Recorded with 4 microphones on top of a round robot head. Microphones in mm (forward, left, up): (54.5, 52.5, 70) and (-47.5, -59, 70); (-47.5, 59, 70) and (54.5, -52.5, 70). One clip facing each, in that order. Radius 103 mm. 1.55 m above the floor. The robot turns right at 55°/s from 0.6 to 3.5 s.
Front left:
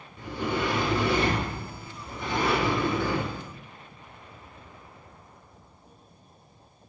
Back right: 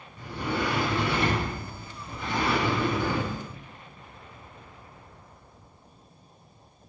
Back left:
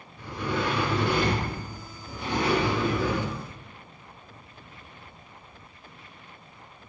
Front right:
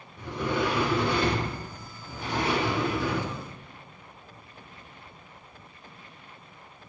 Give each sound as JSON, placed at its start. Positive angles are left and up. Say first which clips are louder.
{"t": 0.2, "sound": "a sliding door", "louder": "front left 1 dB, front right 2 dB", "azimuth_deg": 25, "distance_m": 1.7}